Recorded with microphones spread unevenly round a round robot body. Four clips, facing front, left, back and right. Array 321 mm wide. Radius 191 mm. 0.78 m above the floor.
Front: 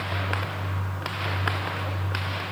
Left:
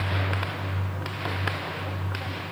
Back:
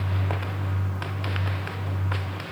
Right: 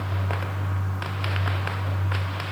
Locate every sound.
Only background noise.